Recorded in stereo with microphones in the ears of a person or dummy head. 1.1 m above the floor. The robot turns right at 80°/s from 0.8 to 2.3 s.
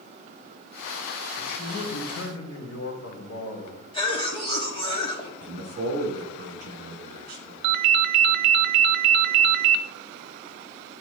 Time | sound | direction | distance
1.4 | a man speaking | 25° left | 3 m
3.9 | a cough | 30° left (ahead or behind) | 2.5 m
5.4 | a man speaking | 50° right (ahead or behind) | 3 m
7.6 | a ringtone | 55° right (ahead or behind) | 0.6 m